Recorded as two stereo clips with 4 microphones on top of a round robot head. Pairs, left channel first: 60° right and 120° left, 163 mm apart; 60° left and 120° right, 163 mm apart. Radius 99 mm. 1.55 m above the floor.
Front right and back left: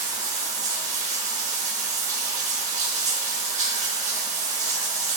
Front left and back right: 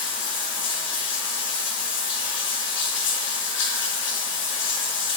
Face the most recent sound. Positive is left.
turn(degrees=70)